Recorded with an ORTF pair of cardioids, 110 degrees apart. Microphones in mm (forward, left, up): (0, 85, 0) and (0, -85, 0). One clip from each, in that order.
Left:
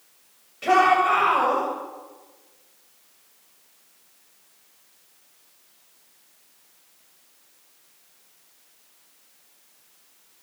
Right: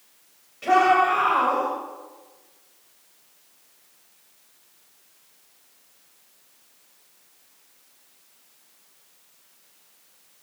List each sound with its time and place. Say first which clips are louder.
0.6 s a shout: even; 20° left, 7.5 m